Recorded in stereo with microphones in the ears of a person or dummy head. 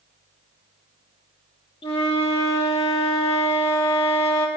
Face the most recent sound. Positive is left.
turn(degrees=30)  # may be behind; listen again after turning